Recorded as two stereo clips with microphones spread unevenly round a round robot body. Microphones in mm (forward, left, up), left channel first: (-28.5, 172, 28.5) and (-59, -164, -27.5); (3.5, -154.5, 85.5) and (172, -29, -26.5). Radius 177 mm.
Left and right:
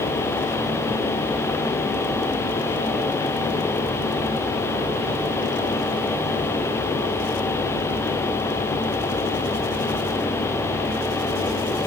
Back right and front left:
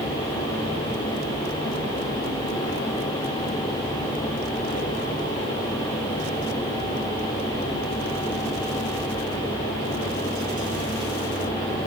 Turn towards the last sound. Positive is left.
No sound to turn to.